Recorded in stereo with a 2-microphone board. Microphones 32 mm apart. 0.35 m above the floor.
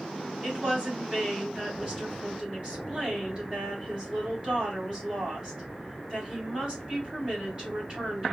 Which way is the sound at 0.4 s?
25° right (ahead or behind).